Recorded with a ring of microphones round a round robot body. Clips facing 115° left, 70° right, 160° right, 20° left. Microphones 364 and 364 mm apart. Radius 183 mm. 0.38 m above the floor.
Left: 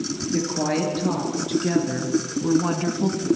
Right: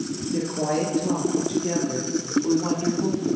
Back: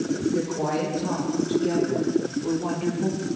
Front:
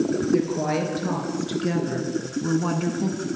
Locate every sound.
0.3 s a woman speaking: 50° left, 6 m; by 3.3 s 85° left, 3 m